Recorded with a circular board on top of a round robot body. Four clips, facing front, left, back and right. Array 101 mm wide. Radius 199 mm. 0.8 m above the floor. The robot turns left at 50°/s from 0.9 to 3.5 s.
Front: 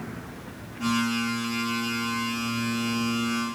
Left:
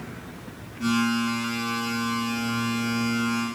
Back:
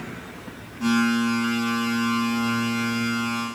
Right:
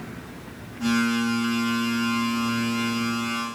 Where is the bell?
No bell in this recording.